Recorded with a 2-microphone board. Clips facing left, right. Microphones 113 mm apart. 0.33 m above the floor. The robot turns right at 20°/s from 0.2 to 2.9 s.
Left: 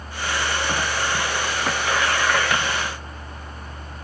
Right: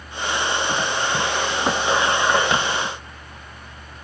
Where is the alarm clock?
I don't hear an alarm clock.